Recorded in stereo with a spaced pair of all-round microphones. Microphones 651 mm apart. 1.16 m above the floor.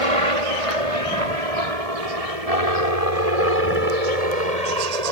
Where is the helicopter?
55° right (ahead or behind); by 5.1 s 70° right (ahead or behind).